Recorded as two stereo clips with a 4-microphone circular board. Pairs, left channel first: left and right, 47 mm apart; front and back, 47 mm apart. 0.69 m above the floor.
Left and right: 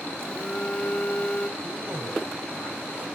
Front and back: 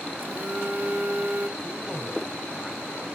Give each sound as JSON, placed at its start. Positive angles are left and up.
{"t": 0.2, "sound": "a phone buzzing", "azimuth_deg": 150, "distance_m": 1.2}
{"t": 1.6, "sound": "a man speaking", "azimuth_deg": -105, "distance_m": 2.5}